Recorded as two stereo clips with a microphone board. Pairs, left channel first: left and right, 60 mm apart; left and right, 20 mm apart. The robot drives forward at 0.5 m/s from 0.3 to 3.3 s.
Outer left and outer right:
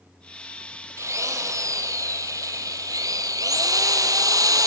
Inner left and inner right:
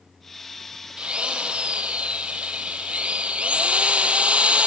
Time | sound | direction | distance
1.0 | a drill | 60° right (ahead or behind) | 2.5 m